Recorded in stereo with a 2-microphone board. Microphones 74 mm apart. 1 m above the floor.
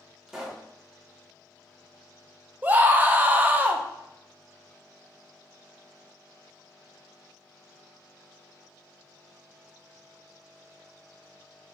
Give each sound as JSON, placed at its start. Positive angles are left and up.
{"t": 0.3, "sound": "a pop", "side_deg": -5, "distance_m": 0.7}
{"t": 2.6, "sound": "a scream", "side_deg": -20, "distance_m": 0.6}